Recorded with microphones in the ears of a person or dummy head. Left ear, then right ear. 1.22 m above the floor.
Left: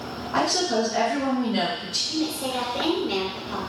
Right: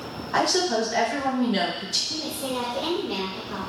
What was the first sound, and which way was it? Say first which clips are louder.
A woman speaking: right 1 dB; 15° right (ahead or behind).